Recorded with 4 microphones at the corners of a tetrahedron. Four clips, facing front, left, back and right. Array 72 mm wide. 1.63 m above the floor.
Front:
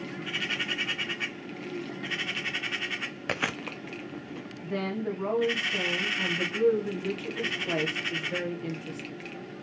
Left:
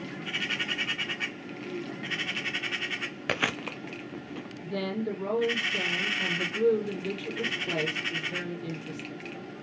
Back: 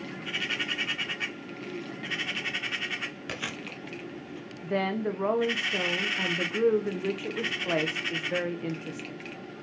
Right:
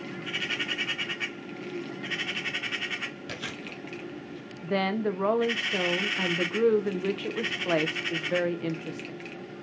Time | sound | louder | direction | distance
3.3 | chewing | left 7 dB, front 5 dB | 60° left | 0.6 m
4.6 | a woman speaking | right 5 dB, back 3 dB | 115° right | 1.2 m